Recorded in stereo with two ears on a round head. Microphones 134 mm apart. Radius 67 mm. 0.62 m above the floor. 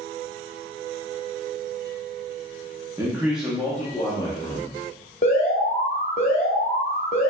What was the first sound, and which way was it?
A man speaking, 20° right (ahead or behind).